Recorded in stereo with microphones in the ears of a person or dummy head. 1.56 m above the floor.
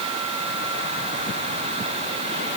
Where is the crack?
I don't hear a crack.